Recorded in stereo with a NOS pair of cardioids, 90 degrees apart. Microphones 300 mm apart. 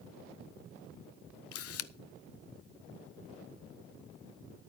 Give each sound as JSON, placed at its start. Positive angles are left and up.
{"t": 1.5, "sound": "a camera shutter", "azimuth_deg": 55, "distance_m": 0.7}